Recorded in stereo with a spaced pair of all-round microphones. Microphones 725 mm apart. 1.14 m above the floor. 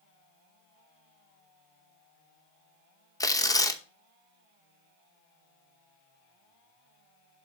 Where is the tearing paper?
5° left (ahead or behind), 0.7 m.